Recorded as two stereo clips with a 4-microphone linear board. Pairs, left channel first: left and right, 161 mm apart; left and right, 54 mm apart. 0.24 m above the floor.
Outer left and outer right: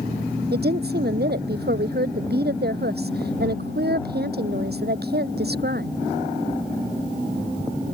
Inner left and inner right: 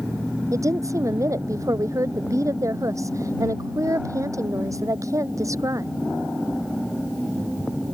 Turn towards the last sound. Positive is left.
turn(degrees=-85)